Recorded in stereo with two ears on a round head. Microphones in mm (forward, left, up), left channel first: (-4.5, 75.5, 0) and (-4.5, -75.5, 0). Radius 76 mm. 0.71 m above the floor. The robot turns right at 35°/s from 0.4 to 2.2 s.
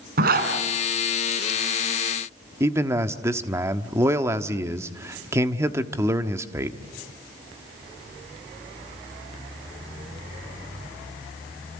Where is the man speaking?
15° right (ahead or behind), 1.2 m.